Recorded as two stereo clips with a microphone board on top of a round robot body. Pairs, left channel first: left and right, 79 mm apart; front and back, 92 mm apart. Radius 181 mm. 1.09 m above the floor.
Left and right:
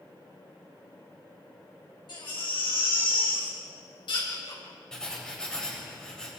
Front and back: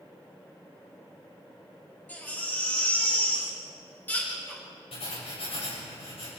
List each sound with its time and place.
2.1 s a baby crying: 70° left, 6 m
4.9 s writing: 10° left, 7 m